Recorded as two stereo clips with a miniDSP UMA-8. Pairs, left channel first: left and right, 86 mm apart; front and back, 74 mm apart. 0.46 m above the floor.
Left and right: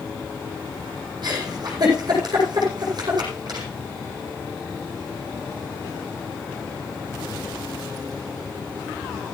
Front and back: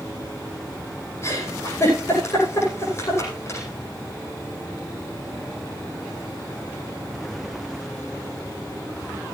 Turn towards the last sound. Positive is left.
turn(degrees=-50)